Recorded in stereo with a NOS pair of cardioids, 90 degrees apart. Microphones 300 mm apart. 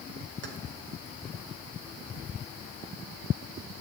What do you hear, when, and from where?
0.4 s keys jangling: 35° right, 3 m